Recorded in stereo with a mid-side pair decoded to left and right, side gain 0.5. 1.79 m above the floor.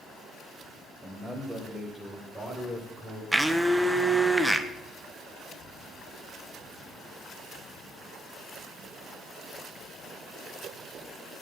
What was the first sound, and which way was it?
A man speaking, 5° right.